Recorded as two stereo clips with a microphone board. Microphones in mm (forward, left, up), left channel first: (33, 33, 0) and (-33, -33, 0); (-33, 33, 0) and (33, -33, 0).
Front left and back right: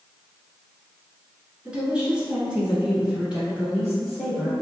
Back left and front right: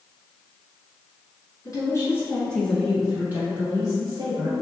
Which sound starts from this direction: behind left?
A woman speaking, at 1.6 s.